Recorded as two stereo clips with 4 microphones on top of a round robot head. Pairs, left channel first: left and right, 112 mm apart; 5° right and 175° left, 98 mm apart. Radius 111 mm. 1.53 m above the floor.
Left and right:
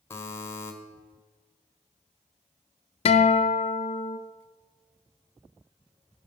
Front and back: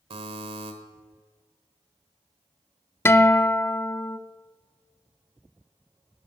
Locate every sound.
0.1 s a buzzer: 160° left, 1.3 m
3.0 s a guitar: 60° left, 0.6 m